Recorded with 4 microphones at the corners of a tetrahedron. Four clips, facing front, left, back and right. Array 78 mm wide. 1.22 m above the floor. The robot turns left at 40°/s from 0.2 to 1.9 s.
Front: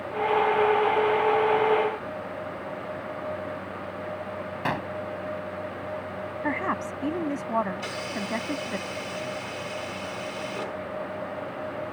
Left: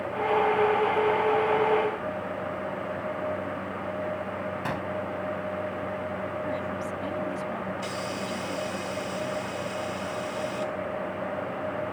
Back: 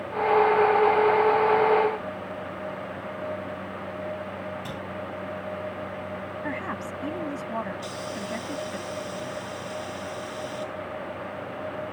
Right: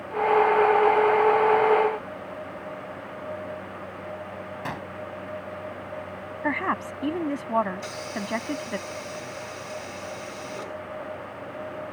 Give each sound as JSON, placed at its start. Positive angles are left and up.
{"t": 4.7, "sound": "a gunshot", "azimuth_deg": -5}
{"t": 6.4, "sound": "a woman speaking", "azimuth_deg": -65}
{"t": 7.8, "sound": "a hiss", "azimuth_deg": -15}